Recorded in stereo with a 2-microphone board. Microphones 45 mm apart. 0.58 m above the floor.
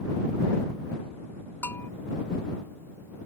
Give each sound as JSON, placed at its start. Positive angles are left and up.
{"t": 1.6, "sound": "a bell", "side_deg": 65}